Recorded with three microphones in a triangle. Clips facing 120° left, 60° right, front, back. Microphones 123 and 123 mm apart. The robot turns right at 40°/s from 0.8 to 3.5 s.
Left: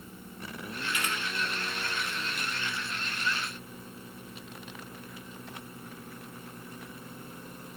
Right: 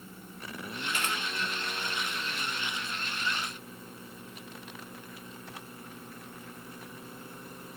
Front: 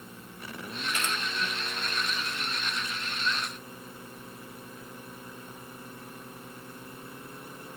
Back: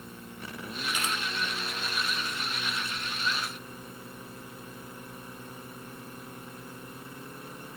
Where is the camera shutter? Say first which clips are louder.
Right 1 dB, even; 105° right, 3 m; by 1.2 s 95° right, 3 m.